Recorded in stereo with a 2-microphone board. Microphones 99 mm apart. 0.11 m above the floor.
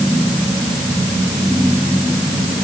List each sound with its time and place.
Only background noise.